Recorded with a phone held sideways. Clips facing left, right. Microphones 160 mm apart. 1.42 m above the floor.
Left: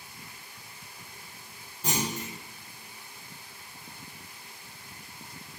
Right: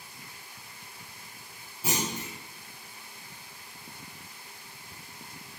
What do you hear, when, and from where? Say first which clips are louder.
1.8 s a clunk: left 1 dB; 5° right (ahead or behind), 1.0 m